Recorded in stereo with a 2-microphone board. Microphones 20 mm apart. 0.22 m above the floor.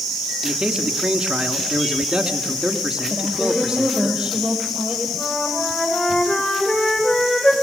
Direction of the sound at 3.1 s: 35° right (ahead or behind).